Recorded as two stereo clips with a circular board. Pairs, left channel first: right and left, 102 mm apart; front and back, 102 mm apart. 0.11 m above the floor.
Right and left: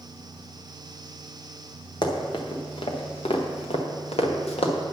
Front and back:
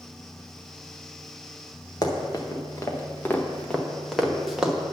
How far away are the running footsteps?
About 1.7 m.